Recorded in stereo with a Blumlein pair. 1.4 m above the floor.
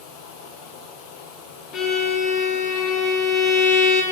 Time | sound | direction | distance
1.7 | a violin | 30° left | 0.8 m